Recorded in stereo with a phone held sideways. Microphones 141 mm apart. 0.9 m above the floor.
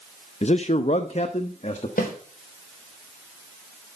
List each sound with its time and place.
0.4 s a man speaking: 50° left (ahead or behind), 0.5 m
2.0 s a snare drum: 80° left, 4 m